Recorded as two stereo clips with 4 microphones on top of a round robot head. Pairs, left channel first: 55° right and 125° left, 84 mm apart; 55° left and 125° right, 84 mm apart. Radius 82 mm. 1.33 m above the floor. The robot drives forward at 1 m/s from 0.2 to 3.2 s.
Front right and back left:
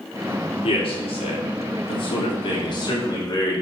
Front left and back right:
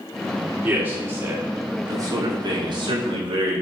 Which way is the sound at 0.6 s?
50° right.